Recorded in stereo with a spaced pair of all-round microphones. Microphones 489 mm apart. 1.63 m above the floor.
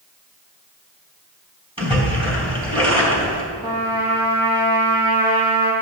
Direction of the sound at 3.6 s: 55° right (ahead or behind).